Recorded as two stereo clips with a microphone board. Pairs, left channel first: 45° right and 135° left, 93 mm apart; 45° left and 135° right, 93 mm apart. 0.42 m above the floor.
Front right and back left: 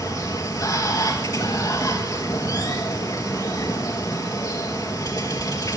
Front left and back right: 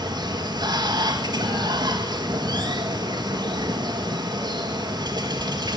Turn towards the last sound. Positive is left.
turn(degrees=-95)